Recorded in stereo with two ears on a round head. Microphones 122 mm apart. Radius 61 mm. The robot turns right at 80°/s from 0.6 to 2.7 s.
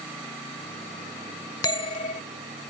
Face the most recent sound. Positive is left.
turn(degrees=120)